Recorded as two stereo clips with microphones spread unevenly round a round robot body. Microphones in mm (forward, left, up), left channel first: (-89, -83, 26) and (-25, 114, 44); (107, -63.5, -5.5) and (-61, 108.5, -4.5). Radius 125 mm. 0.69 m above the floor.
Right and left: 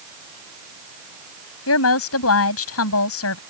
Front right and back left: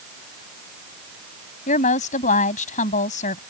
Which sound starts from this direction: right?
A woman speaking, at 1.7 s.